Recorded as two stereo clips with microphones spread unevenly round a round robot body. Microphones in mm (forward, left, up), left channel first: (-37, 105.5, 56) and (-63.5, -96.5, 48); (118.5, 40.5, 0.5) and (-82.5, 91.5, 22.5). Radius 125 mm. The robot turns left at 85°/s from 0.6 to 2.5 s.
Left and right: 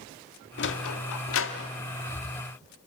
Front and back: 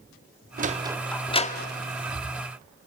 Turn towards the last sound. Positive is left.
turn(degrees=-45)